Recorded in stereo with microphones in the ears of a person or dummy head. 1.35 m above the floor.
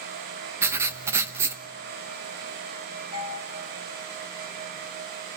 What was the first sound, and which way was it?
Writing, 20° right (ahead or behind).